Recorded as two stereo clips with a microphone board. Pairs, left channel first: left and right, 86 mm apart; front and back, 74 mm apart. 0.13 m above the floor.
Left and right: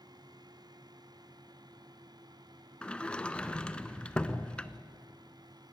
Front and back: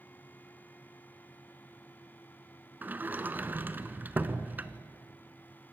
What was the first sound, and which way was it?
A sliding door, 155° left.